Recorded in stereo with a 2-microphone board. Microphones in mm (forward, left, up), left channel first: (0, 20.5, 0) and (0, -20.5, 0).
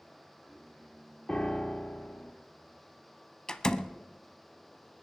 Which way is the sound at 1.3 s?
20° left (ahead or behind).